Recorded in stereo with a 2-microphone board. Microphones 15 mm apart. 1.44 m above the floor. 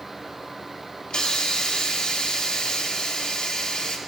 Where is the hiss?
65° left (ahead or behind), 1.0 m.